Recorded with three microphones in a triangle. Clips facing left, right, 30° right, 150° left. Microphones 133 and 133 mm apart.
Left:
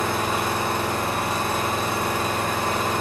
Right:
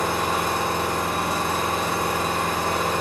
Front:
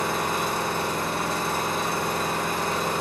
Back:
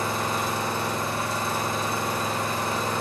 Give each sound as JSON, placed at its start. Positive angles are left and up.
{"t": 0.0, "sound": "an engine running", "azimuth_deg": -15, "distance_m": 1.1}